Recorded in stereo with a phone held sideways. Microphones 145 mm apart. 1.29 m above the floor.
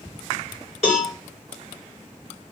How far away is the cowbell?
About 2.5 m.